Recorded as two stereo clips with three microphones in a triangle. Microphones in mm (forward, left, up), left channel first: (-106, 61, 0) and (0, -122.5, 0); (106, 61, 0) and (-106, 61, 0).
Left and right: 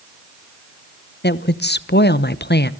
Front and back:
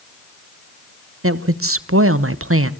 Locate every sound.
1.2 s a woman speaking: 165° left, 0.9 m